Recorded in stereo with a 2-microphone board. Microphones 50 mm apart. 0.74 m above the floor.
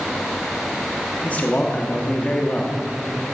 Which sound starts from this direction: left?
A man speaking, at 1.2 s.